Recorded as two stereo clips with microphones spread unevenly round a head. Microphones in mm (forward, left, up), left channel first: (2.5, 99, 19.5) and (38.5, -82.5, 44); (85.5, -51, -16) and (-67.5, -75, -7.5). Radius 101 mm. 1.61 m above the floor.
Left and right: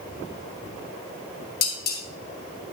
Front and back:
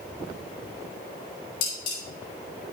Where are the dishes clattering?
60° left, 3.5 m.